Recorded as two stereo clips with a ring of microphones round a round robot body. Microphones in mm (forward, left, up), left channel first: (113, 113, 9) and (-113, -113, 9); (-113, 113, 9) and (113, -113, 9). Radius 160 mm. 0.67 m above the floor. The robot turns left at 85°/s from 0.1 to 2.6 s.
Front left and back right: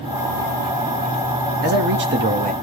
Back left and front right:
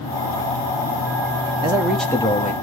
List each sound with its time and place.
1.6 s a man speaking: 105° right, 1.1 m; by 2.5 s 175° left, 1.1 m